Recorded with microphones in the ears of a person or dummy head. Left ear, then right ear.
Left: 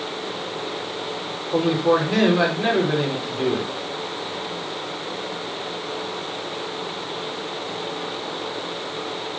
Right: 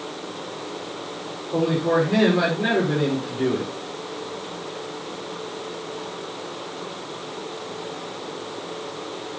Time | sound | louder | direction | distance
1.5 | a man speaking | left 2 dB | 25° left (ahead or behind) | 5 m